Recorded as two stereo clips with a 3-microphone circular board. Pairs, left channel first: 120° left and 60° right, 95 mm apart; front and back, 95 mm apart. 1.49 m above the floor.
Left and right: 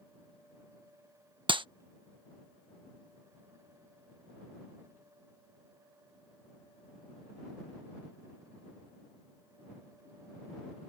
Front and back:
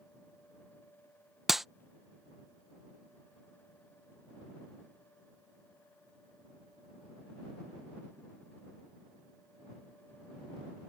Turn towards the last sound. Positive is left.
turn(degrees=-95)